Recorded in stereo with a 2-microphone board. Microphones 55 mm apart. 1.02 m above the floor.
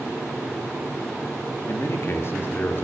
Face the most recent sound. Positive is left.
turn(degrees=40)  # may be behind; listen again after turning